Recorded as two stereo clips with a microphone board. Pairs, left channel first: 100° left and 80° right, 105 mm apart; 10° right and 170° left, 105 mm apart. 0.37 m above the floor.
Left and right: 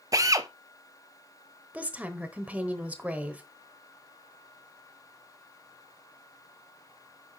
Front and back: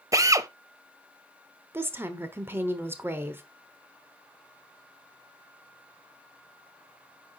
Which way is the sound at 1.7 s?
145° right.